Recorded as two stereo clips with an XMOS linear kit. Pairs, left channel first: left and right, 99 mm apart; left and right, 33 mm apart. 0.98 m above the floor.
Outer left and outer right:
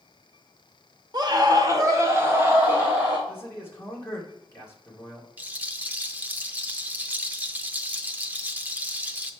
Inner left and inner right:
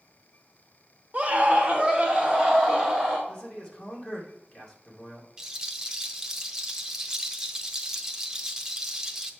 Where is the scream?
45° right (ahead or behind), 1.2 m; by 3.2 s 15° right (ahead or behind), 1.7 m.